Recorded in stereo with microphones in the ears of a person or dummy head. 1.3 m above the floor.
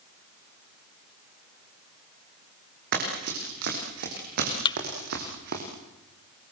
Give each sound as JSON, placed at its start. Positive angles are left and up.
{"t": 2.9, "sound": "running footsteps", "side_deg": -60, "distance_m": 8.0}
{"t": 4.7, "sound": "a thud", "side_deg": 20, "distance_m": 1.3}